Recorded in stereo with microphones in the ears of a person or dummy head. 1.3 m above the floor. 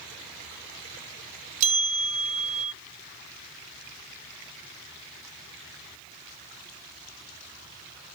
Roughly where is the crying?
No crying in this recording.